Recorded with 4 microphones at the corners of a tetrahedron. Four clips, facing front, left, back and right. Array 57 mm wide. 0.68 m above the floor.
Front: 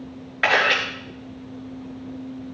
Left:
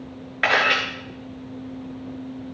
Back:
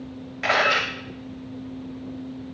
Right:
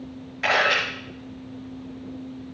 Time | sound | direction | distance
0.4 | a camera shutter | 45° left | 5.5 m